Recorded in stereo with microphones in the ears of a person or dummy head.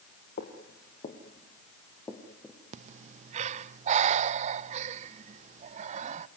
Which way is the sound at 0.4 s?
45° left (ahead or behind).